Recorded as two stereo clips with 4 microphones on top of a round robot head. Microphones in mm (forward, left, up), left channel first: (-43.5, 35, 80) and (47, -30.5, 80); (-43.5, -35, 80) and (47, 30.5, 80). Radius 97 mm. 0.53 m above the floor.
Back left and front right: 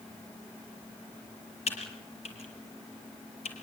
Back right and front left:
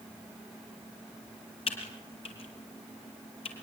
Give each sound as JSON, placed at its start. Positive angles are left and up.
{"t": 1.7, "sound": "typing on a keyboard", "azimuth_deg": 175, "distance_m": 6.5}